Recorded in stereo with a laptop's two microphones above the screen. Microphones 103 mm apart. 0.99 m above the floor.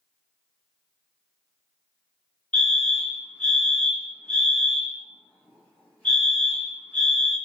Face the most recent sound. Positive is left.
turn(degrees=15)  # may be behind; listen again after turning